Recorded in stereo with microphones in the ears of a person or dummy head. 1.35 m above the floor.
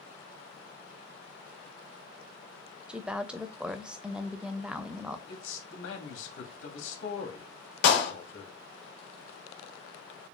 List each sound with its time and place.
2.9 s a woman speaking: 5° right (ahead or behind), 0.7 m
5.3 s a man speaking: 70° left (ahead or behind), 2.5 m
7.8 s a clap: 65° left (ahead or behind), 1.8 m